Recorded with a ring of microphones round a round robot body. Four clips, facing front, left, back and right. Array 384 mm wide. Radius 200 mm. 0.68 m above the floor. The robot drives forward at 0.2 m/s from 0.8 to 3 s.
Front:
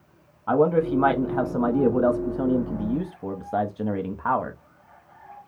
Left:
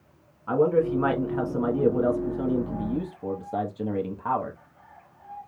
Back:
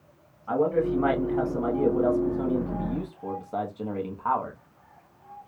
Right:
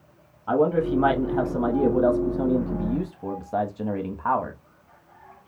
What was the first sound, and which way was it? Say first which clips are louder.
A man speaking: even, front 4 dB; 10° right.